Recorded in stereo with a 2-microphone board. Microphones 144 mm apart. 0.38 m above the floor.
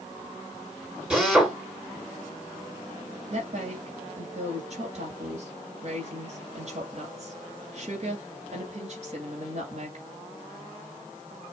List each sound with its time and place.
1.1 s a drill: 5° right (ahead or behind), 3.5 m
3.3 s a woman speaking: 50° right (ahead or behind), 2.5 m